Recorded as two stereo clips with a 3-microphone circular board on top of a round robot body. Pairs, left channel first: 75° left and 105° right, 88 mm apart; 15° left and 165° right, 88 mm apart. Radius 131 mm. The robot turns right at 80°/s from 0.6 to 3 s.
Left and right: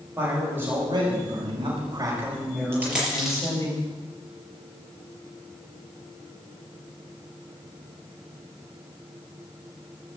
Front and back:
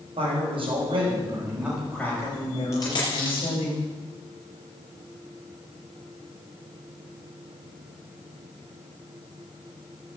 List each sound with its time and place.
0.2 s a man speaking: 175° right, 6 m; by 3.7 s 20° left, 6 m
2.7 s a dropped coin: 45° right, 5.5 m; by 3.5 s 20° right, 5.5 m